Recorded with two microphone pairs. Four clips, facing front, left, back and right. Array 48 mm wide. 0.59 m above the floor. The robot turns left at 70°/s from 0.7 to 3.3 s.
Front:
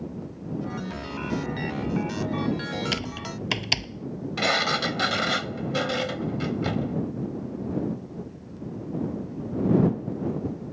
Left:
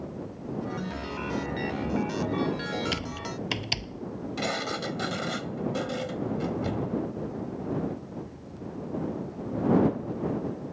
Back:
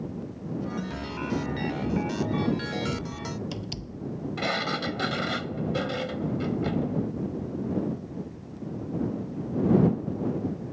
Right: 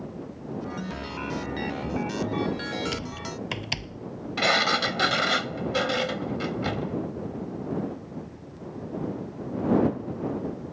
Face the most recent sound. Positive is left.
turn(degrees=-65)